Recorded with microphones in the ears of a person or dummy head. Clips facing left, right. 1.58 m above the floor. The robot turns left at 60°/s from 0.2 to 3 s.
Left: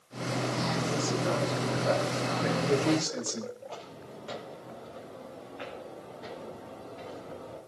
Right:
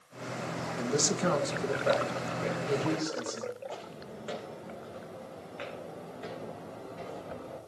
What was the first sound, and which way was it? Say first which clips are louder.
A man speaking: right 4 dB; 90° right.